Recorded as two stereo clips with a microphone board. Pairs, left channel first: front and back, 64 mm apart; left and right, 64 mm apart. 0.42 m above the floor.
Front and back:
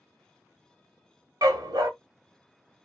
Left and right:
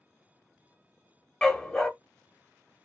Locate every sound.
1.4 s a dog barking: 170° left, 0.6 m